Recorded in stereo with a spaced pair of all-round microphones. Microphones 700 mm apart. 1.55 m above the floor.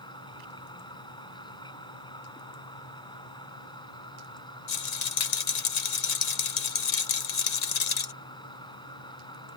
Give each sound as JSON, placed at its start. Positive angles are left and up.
{"t": 0.0, "sound": "a machine running", "side_deg": 5}
{"t": 4.7, "sound": "a rattle", "side_deg": 65}